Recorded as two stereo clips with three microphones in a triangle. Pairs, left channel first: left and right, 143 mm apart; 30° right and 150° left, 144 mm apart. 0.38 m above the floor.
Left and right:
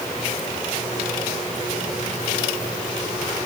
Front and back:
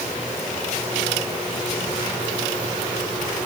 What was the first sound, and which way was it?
Only background noise.